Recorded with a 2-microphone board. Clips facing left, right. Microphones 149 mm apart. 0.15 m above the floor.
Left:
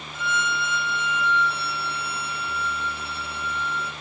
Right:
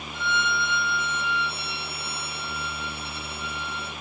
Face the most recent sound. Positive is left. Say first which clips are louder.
# even
turn(degrees=10)  # may be behind; listen again after turning